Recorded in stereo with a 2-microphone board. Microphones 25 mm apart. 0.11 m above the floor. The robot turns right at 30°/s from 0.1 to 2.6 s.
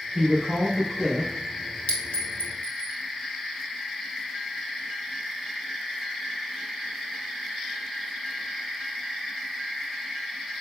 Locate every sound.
0.1 s a woman speaking: 35° right, 2.5 m; by 1.3 s straight ahead, 2.5 m
1.9 s a clink: 65° left (ahead or behind), 1.4 m; by 2.9 s 55° left (ahead or behind), 1.4 m